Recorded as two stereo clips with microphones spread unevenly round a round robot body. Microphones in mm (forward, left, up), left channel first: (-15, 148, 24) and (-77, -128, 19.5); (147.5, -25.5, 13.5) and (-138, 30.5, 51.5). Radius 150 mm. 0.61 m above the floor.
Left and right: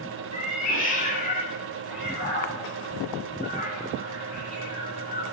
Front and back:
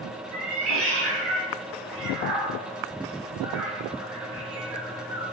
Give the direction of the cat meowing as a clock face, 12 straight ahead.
7 o'clock.